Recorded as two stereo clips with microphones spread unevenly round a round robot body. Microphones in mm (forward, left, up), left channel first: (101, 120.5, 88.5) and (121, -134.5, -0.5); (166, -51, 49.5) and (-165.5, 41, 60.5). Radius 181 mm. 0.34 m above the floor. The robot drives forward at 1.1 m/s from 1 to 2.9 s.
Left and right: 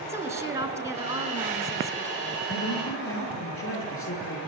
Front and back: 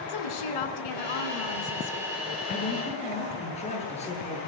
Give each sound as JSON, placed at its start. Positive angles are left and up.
{"t": 0.1, "sound": "a woman speaking", "azimuth_deg": -10, "distance_m": 5.0}
{"t": 2.5, "sound": "a man speaking", "azimuth_deg": 55, "distance_m": 9.5}